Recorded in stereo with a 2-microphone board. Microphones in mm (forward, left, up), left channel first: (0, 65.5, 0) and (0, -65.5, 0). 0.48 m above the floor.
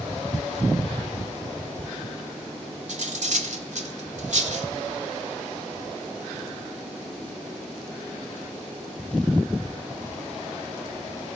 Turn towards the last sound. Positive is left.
turn(degrees=-65)  # may be behind; listen again after turning